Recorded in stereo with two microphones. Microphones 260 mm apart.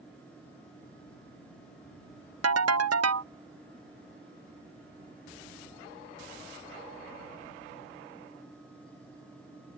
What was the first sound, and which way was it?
A ringtone, 80° right.